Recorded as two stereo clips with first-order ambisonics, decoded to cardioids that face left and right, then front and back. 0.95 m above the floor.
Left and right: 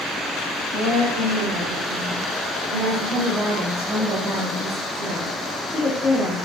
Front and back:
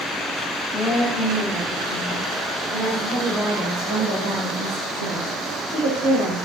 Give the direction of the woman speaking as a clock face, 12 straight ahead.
4 o'clock.